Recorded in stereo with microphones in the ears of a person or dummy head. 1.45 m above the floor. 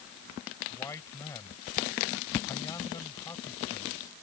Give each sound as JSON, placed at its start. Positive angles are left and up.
{"t": 0.7, "sound": "a man speaking", "side_deg": 15}